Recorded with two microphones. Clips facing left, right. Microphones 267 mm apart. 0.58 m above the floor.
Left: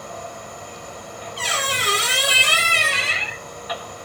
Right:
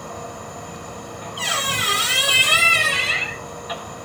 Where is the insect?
60° right (ahead or behind), 1.9 m.